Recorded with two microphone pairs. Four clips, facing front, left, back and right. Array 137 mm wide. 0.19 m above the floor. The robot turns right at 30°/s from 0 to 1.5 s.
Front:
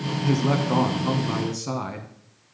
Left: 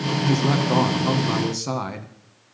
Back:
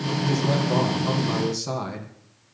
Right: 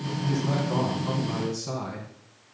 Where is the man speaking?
55° left, 1.2 m; by 2.1 s 90° left, 1.2 m.